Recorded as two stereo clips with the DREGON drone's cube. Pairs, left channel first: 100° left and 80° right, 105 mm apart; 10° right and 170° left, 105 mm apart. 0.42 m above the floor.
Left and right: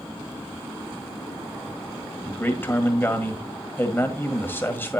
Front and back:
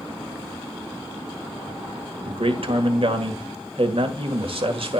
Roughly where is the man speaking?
Behind.